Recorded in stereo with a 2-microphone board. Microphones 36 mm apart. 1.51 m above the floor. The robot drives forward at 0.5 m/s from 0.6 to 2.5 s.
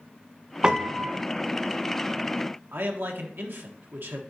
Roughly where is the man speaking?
Right.